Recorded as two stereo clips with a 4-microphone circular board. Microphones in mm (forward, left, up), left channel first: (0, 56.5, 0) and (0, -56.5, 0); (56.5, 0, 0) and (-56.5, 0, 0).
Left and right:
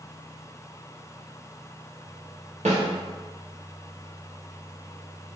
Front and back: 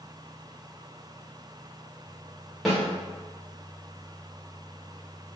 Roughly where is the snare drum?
Right.